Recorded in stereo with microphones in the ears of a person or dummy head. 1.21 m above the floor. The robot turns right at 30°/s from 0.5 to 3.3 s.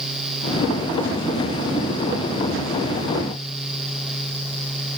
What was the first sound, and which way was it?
Only background noise.